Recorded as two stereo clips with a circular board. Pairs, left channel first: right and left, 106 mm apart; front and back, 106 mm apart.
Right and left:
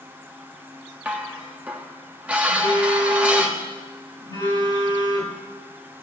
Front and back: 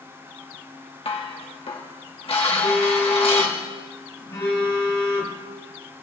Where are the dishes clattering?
15° left, 1.1 m.